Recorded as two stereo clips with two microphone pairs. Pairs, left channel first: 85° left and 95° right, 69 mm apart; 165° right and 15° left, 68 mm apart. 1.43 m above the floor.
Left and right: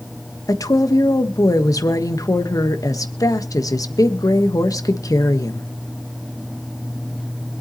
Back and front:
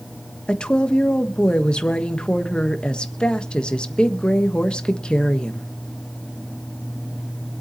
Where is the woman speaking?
115° left, 1.3 m.